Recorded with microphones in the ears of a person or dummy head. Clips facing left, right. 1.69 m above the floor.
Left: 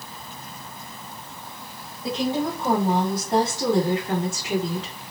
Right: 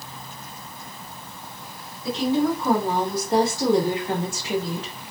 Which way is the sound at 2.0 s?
25° left (ahead or behind).